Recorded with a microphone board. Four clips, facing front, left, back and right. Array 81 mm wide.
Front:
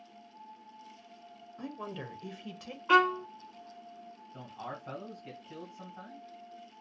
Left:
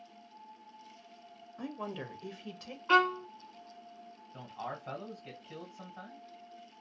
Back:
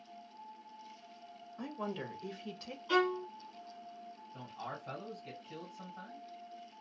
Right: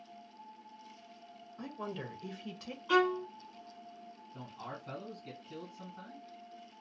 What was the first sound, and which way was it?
A woman speaking, 110° left.